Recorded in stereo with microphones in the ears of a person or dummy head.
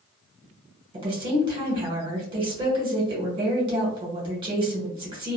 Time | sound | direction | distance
0.9 | a woman speaking | 25° right (ahead or behind) | 1.1 m